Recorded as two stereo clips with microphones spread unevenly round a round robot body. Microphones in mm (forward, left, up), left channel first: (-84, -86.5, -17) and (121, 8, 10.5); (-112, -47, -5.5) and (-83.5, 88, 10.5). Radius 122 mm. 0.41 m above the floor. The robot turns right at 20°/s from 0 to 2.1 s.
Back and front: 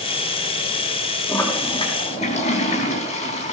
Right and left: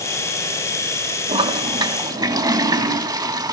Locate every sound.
1.3 s a toilet flushing: 125° left, 3.5 m; by 3.5 s 140° left, 3.5 m